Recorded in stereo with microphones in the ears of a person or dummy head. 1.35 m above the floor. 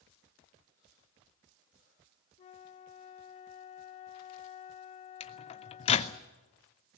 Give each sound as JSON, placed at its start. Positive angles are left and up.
{"t": 2.4, "sound": "a flute", "side_deg": 25, "distance_m": 0.7}
{"t": 5.2, "sound": "a microwave", "side_deg": 35, "distance_m": 0.7}